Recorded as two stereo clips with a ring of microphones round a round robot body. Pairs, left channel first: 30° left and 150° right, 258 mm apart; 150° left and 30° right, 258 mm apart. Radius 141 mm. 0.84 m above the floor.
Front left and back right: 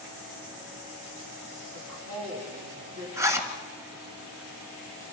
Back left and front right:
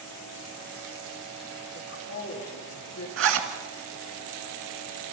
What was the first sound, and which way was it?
A woman speaking, 175° right.